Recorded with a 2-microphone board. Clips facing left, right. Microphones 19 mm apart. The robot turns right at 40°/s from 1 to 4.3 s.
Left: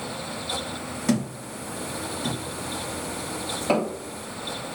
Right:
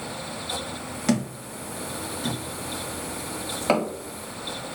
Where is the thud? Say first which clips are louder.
Even; 30° right (ahead or behind), 2.0 m; by 3.9 s 25° right (ahead or behind), 2.0 m.